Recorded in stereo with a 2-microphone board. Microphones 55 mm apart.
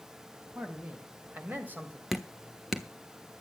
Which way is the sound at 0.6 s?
30° right (ahead or behind).